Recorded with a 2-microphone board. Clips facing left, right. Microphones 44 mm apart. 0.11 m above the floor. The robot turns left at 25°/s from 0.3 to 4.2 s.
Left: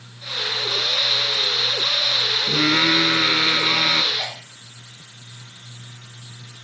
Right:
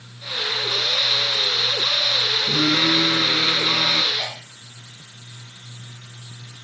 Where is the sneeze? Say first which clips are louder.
Even; centre (ahead or behind), 4.5 m.